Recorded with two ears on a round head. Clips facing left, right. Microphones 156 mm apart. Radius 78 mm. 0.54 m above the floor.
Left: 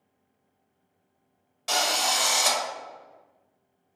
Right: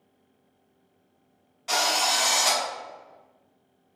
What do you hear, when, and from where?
1.7 s a drill: 50° left (ahead or behind), 1.6 m